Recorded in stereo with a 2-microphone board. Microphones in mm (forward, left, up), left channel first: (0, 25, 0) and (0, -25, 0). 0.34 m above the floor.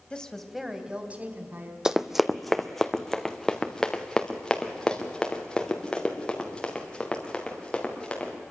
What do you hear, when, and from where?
0.1 s a woman speaking: 20° left (ahead or behind), 1.6 m; by 1.8 s 45° right (ahead or behind), 2.5 m
1.9 s running footsteps: 10° right (ahead or behind), 0.6 m; by 8.3 s 20° left (ahead or behind), 4.5 m